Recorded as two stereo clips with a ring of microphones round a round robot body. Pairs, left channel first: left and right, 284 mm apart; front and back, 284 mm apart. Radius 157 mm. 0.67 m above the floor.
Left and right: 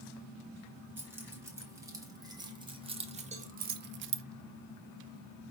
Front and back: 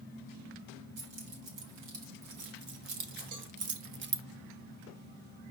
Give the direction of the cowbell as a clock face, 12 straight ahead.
5 o'clock.